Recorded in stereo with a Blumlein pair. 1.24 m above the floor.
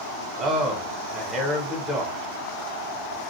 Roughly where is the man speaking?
Ahead.